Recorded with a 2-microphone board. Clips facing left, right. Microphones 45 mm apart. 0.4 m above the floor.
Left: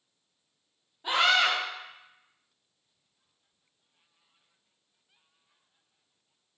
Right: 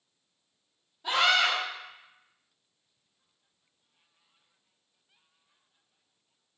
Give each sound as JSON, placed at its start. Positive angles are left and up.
{"t": 1.0, "sound": "a scream", "side_deg": 20, "distance_m": 1.0}